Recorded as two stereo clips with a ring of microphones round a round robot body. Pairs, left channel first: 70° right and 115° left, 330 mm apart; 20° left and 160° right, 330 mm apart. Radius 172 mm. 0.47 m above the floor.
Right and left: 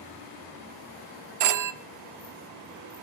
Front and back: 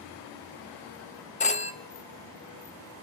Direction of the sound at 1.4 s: 90° left.